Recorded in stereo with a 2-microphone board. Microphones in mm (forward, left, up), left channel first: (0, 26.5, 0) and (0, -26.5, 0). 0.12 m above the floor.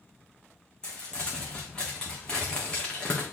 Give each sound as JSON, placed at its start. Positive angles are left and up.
{"t": 0.8, "sound": "crumpling", "side_deg": 15, "distance_m": 2.5}